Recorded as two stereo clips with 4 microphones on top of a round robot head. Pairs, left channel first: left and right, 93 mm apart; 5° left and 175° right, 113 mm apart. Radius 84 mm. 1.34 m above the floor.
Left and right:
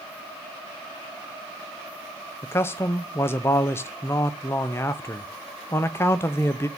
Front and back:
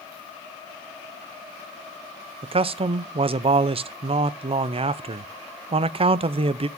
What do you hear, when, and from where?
2.4 s a man speaking: 155° left, 0.5 m